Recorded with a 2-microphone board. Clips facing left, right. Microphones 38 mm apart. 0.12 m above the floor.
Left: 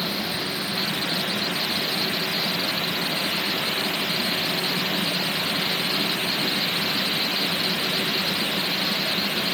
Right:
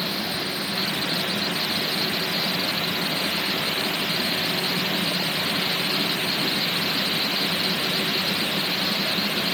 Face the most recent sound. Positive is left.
No sound to turn to.